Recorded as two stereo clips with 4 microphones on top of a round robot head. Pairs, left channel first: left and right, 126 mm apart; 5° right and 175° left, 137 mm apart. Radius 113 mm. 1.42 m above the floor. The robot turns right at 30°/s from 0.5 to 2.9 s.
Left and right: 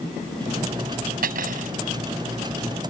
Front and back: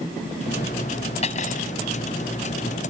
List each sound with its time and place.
1.2 s cutlery clinking: 60° right; by 1.7 s 50° right